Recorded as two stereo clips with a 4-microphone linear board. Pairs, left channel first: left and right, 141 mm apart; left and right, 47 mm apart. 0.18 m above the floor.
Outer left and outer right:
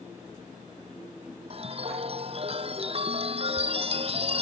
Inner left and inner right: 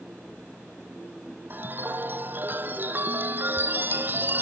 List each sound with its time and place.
1.5 s a chime: 45° right (ahead or behind)